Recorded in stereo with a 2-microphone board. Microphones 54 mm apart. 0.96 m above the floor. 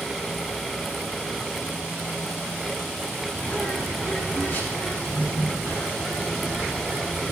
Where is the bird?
30° left (ahead or behind), 9.5 m.